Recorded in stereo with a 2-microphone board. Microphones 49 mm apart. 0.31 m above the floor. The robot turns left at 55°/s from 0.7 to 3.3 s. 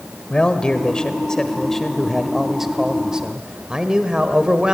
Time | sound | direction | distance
0.3 | a man speaking | 20° left (ahead or behind) | 1.4 m